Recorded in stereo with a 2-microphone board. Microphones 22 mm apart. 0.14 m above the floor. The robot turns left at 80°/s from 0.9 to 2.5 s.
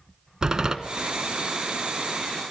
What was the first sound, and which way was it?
A door slam, 30° right (ahead or behind).